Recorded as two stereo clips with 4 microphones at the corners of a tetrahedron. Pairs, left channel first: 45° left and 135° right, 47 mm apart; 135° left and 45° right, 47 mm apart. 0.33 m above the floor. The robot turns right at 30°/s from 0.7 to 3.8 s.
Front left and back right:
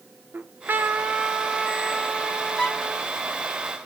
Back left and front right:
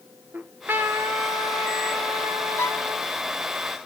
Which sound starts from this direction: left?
A violin, at 2.6 s.